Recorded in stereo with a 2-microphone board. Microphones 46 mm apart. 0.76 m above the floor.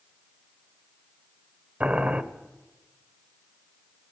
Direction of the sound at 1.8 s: 30° right (ahead or behind).